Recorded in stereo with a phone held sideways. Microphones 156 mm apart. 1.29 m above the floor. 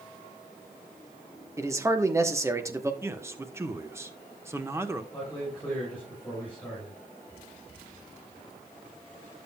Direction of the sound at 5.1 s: 10° left (ahead or behind).